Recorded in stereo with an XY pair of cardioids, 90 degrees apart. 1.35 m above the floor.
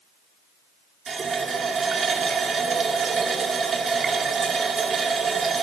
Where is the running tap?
50° right, 1.9 m.